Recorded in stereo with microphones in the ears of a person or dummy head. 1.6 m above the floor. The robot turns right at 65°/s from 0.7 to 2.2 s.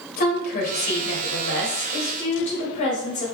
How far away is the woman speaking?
About 1.5 m.